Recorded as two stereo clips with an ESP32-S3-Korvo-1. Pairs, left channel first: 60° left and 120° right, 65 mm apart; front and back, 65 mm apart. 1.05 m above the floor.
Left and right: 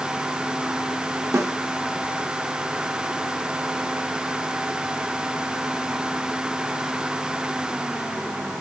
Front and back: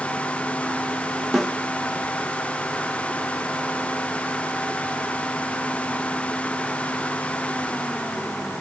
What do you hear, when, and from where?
1.3 s a snare drum: 95° right, 1.2 m